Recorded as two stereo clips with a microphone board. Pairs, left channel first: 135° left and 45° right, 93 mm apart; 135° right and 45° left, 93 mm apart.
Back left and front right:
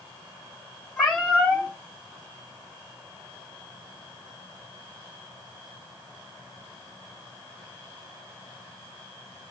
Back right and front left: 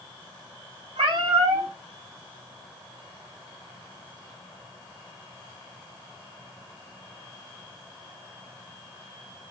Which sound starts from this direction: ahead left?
A cat meowing, at 1.0 s.